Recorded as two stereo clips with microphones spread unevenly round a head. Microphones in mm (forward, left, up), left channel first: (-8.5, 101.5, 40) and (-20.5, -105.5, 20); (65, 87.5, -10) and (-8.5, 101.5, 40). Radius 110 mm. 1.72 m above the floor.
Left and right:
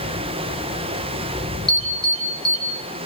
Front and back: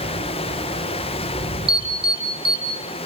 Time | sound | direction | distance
0.0 | running water | 25° right | 1.4 m
1.7 | an alarm | 175° left | 5 m